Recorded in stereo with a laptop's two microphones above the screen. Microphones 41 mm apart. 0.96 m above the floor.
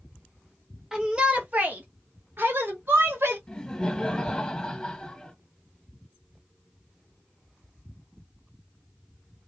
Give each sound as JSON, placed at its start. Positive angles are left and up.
{"t": 0.9, "sound": "a shout", "side_deg": -15, "distance_m": 0.6}
{"t": 3.5, "sound": "laughter", "side_deg": 20, "distance_m": 1.0}